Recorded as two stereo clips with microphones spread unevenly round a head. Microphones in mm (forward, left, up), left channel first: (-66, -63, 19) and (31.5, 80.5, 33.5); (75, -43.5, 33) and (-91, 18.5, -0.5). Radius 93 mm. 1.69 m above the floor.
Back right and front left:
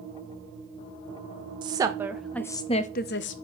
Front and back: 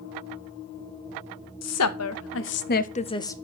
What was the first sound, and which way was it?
A woman speaking, 15° right.